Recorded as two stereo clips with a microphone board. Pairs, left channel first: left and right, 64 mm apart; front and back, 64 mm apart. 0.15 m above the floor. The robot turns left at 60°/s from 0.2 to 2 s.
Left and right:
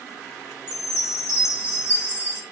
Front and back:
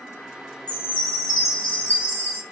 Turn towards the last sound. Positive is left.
turn(degrees=50)